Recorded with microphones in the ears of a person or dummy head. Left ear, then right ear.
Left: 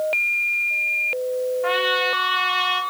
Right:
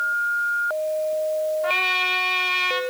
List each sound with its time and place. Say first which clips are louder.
1.6 s a trumpet: left 2 dB; 10° left (ahead or behind), 1.2 m